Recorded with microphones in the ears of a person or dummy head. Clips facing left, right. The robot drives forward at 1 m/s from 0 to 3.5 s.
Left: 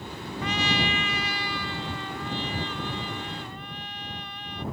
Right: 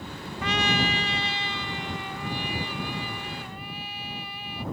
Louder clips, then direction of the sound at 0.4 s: Right 1 dB; 60° right (ahead or behind).